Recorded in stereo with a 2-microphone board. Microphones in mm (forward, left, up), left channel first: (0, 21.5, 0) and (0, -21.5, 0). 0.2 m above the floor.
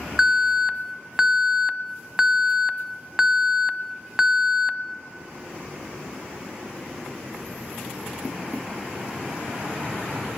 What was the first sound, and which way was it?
An alarm, 15° right (ahead or behind).